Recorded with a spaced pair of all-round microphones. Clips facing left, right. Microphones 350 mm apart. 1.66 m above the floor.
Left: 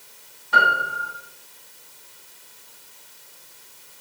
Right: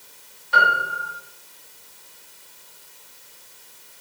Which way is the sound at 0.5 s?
60° left (ahead or behind).